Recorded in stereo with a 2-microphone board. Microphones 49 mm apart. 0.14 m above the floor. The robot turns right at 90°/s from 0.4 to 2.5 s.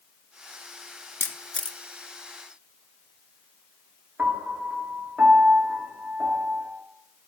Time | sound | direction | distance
1.2 | a camera shutter | 45° left (ahead or behind) | 0.5 m
4.2 | a piano | 35° right (ahead or behind) | 1.2 m